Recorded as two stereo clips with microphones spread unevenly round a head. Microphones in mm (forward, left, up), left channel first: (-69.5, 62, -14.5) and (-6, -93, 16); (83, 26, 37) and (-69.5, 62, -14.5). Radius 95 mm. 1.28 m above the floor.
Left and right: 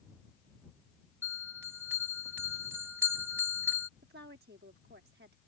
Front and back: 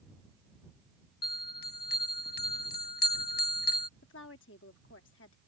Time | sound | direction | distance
1.2 | a bell | 10° left | ?
4.0 | a woman speaking | 25° right | ?